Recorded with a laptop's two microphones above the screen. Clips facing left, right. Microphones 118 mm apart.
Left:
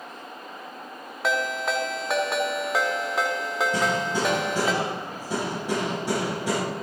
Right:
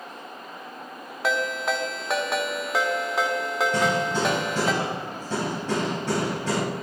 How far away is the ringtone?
About 1.0 m.